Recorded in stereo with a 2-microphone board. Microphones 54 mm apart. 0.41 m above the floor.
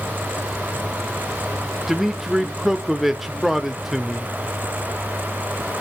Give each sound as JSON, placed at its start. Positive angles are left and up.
{"t": 1.9, "sound": "a man speaking", "side_deg": -5, "distance_m": 0.8}